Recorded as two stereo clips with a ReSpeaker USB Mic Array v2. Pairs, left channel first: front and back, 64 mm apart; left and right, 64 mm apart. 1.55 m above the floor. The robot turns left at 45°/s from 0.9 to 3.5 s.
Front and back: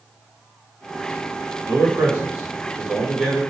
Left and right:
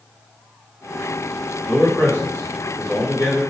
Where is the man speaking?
160° left, 1.3 m; by 3.4 s 80° left, 1.3 m.